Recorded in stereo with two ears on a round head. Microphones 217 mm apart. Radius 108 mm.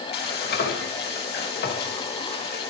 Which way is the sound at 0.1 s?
40° left (ahead or behind).